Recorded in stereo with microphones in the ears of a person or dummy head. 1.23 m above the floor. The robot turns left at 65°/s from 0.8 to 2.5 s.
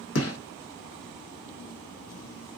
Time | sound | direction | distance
0.1 | a gunshot | 80° left | 1.1 m